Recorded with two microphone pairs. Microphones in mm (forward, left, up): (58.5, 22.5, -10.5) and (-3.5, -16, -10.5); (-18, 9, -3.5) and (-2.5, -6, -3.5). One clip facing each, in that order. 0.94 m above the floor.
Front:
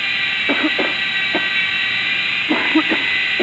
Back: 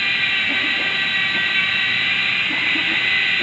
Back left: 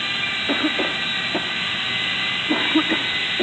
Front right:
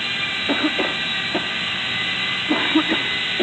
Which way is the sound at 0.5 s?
40° left.